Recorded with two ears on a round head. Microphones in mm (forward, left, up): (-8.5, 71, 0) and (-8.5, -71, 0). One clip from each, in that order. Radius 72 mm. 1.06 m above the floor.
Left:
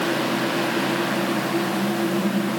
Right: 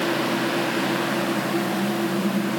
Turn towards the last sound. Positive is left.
No sound to turn to.